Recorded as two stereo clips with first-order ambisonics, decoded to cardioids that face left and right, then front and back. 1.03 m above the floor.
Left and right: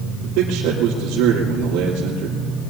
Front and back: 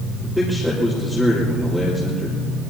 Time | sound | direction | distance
0.2 | a man speaking | 90° right | 3.5 m